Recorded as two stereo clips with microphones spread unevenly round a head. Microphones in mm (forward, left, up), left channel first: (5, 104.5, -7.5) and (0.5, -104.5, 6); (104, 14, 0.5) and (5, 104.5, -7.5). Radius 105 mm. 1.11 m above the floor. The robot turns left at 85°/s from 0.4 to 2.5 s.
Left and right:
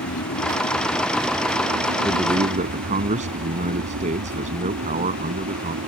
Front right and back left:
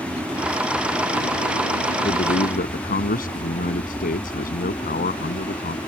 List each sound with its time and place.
0.0 s an aircraft: 65° left; by 5.9 s 110° right
2.0 s a man speaking: 5° left; by 5.8 s 35° right